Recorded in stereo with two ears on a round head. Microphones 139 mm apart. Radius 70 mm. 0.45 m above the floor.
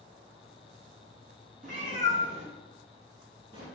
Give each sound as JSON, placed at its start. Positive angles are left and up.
{"t": 1.6, "sound": "a cat meowing", "side_deg": -65, "distance_m": 1.1}